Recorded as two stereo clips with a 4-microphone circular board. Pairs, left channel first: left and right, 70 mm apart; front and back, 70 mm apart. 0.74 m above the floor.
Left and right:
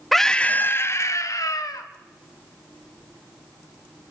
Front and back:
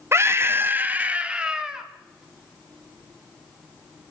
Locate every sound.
0.1 s a scream: 175° left, 0.8 m; by 1.9 s 100° left, 1.5 m